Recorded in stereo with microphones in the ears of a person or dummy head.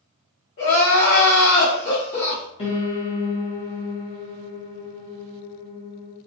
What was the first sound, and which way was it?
Crying, 30° left (ahead or behind).